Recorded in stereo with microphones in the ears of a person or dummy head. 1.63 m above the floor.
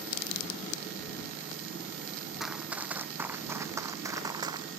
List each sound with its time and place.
2.4 s running footsteps: 5° right (ahead or behind); by 4.7 s 25° right (ahead or behind)